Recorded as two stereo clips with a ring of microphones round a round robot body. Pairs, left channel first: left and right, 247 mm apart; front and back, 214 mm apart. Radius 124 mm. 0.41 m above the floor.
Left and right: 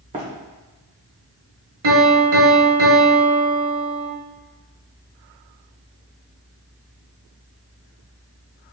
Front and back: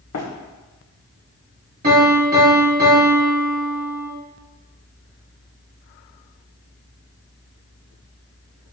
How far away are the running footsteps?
About 1.6 m.